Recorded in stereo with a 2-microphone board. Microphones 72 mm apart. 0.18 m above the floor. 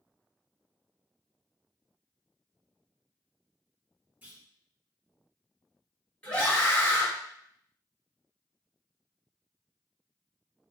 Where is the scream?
20° left (ahead or behind), 1.2 m.